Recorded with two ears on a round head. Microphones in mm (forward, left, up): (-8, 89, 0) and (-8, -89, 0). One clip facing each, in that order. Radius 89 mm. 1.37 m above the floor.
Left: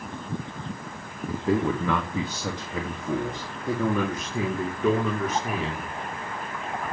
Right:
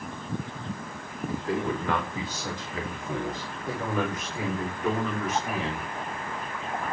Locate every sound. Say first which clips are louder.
1.3 s a man speaking: left 5 dB; 70° left (ahead or behind), 2.5 m; by 5.8 s 85° left, 4.5 m